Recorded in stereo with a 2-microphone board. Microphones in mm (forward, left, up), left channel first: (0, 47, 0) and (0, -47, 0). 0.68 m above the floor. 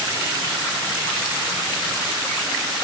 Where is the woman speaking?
No woman speaking in this recording.